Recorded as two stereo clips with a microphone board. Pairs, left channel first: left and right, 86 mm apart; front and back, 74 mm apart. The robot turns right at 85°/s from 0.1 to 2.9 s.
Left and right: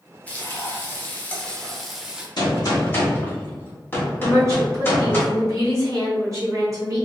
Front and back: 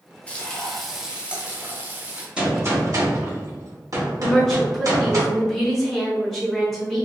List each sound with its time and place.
0.3 s frying: 45° left, 0.6 m; by 2.3 s 145° right, 0.6 m
2.4 s a gunshot: 105° left, 1.2 m; by 5.2 s 150° left, 1.2 m
4.2 s a woman speaking: 85° right, 1.6 m